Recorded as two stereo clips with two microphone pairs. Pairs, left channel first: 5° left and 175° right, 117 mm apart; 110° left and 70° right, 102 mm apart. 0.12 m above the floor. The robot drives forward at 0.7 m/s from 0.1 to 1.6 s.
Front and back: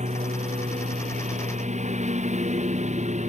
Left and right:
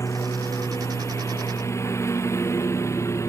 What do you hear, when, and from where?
0.0 s a lawn mower: 170° left; by 3.3 s 175° left